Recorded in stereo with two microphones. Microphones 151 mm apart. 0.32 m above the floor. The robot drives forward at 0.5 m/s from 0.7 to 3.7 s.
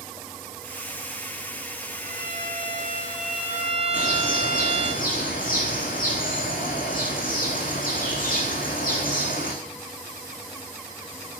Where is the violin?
65° right (ahead or behind), 1.7 m; by 4.9 s 50° right (ahead or behind), 2 m.